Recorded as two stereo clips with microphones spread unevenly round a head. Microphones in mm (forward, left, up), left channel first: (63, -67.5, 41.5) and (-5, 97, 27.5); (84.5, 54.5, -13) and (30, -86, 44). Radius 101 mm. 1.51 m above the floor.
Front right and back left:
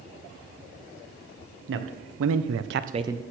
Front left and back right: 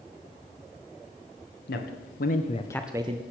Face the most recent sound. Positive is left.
turn(degrees=-160)